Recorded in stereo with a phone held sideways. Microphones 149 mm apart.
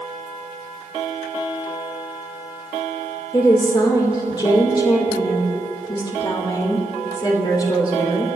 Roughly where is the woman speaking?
Left.